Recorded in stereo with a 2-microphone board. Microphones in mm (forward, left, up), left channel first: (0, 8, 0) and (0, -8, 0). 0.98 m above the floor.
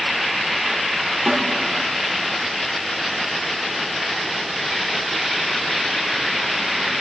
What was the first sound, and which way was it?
A snare drum, 75° right (ahead or behind).